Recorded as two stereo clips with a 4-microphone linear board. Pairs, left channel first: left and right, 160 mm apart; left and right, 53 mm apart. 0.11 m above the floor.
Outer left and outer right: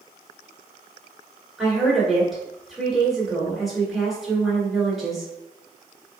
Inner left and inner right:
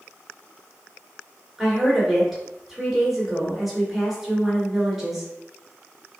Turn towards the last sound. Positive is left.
turn(degrees=0)  # may be behind; listen again after turning